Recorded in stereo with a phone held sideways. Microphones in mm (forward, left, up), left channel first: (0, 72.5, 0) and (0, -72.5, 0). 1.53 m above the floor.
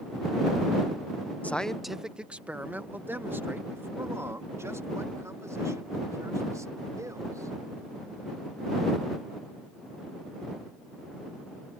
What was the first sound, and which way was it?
A man speaking, 10° left (ahead or behind).